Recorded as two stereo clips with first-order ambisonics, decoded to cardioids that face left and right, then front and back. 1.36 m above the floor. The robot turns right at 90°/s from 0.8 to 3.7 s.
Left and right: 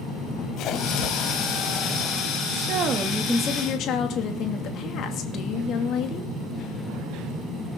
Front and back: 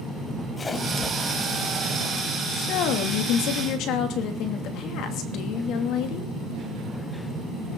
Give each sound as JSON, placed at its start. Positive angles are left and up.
{"t": 0.6, "sound": "a splash", "azimuth_deg": 75, "distance_m": 1.6}
{"t": 2.5, "sound": "a woman speaking", "azimuth_deg": -65, "distance_m": 2.5}